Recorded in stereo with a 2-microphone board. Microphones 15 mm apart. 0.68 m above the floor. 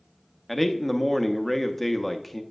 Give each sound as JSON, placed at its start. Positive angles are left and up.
{"t": 0.5, "sound": "a man speaking", "side_deg": 5, "distance_m": 0.8}